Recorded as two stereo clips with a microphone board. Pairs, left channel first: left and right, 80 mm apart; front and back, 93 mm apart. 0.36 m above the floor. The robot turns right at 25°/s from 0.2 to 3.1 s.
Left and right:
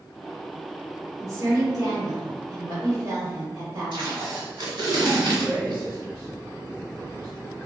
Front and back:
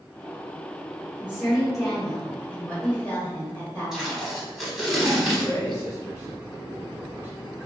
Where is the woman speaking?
110° right, 1.2 m; by 4.3 s 60° right, 1.2 m.